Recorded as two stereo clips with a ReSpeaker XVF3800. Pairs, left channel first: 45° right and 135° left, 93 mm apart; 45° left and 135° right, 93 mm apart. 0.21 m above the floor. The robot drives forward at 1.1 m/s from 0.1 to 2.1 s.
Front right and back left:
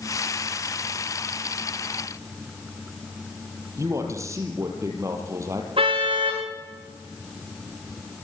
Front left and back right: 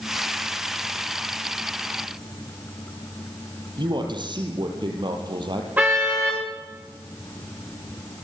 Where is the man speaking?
170° right, 5.5 m.